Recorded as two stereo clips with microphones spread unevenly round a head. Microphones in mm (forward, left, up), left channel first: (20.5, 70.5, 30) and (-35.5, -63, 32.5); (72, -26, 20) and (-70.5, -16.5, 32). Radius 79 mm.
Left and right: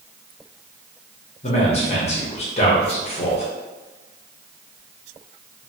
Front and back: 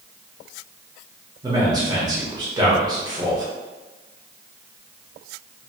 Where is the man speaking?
110° left, 1.0 m.